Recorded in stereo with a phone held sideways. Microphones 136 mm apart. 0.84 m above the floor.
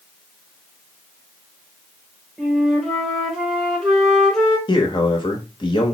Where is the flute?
Centre (ahead or behind), 1.1 m.